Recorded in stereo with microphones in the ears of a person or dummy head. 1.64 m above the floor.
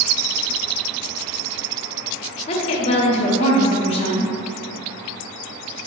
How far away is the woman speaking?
About 0.6 m.